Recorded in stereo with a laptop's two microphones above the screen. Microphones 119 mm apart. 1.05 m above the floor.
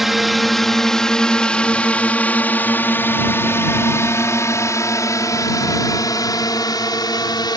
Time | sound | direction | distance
0.0 | a drone | centre (ahead or behind) | ?